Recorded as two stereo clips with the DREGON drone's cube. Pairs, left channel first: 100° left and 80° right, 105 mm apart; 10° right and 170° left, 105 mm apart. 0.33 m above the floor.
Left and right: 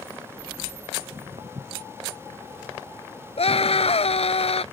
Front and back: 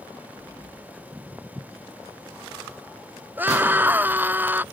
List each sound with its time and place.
1.0 s footsteps: 115° right
3.4 s a scream: 100° left